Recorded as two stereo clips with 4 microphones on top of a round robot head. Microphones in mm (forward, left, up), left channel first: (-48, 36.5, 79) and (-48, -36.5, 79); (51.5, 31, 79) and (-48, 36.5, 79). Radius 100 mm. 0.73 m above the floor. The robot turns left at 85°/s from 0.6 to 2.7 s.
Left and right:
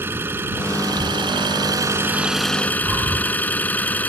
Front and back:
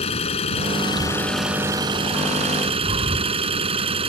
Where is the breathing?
150° right.